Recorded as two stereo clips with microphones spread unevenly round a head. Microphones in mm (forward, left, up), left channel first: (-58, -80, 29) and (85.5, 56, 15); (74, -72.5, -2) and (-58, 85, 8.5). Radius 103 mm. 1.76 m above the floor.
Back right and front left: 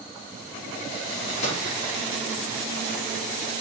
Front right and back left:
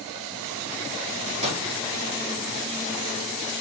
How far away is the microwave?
About 5.5 m.